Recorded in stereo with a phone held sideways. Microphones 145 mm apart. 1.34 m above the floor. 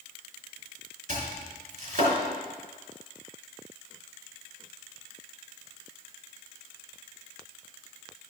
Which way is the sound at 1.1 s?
65° right (ahead or behind).